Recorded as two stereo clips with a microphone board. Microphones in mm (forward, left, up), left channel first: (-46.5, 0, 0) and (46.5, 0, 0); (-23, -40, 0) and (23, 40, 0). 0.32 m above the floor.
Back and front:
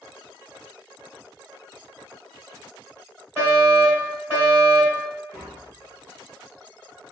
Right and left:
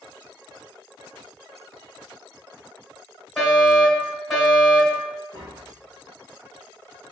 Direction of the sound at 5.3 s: 75° left.